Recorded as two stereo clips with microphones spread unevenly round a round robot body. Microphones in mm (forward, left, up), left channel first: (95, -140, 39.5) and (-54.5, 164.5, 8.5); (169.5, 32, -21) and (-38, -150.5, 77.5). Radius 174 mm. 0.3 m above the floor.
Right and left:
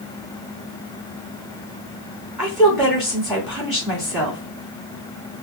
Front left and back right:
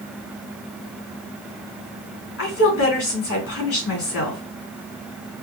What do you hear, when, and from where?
2.4 s a woman speaking: 30° left, 3 m